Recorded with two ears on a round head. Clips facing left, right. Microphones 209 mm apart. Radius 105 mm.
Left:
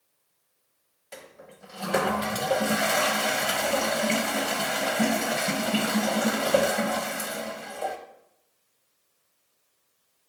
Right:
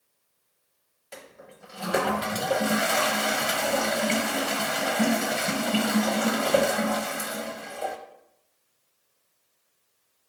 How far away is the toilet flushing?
About 0.8 m.